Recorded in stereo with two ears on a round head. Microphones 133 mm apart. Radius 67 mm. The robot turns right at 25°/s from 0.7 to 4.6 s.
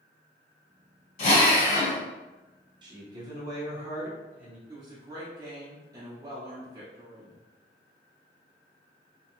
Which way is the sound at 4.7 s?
25° right (ahead or behind).